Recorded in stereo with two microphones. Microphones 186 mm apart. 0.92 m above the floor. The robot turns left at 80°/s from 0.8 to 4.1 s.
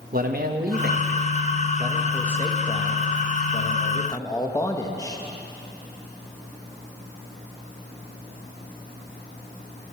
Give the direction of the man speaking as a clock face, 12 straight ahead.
2 o'clock.